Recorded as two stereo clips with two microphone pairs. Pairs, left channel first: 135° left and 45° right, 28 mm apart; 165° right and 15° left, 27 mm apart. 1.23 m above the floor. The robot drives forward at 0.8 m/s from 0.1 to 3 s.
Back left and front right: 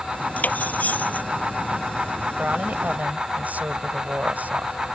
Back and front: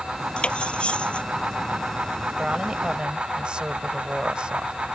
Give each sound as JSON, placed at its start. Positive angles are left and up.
{"t": 0.4, "sound": "cutlery clinking", "azimuth_deg": 150}
{"t": 2.4, "sound": "a woman speaking", "azimuth_deg": -30}